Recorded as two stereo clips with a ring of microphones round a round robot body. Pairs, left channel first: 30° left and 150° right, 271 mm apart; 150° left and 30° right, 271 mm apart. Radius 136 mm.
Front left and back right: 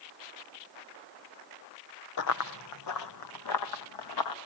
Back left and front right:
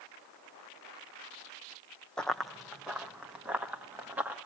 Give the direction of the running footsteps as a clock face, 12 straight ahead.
10 o'clock.